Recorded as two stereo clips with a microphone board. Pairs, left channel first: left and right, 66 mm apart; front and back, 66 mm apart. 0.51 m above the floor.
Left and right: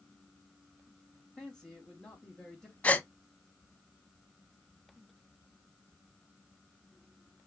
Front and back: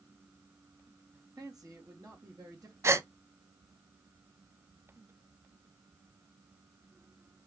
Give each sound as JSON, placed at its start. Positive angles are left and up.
{"t": 1.1, "sound": "a man speaking", "azimuth_deg": 175, "distance_m": 2.5}
{"t": 2.8, "sound": "a gasp", "azimuth_deg": 150, "distance_m": 0.5}